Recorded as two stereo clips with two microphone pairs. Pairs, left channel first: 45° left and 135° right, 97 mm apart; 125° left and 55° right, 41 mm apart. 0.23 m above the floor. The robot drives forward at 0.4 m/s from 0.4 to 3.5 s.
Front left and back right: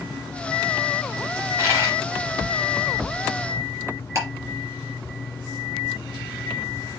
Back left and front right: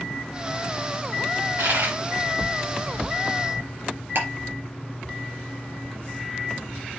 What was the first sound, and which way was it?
A dropped coin, 75° right.